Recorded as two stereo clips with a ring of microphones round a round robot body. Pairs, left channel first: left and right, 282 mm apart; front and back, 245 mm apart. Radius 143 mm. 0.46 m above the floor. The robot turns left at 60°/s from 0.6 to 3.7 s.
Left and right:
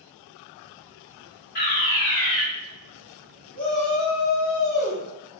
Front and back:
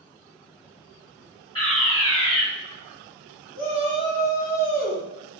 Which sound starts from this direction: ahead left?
A fire alarm, at 1.6 s.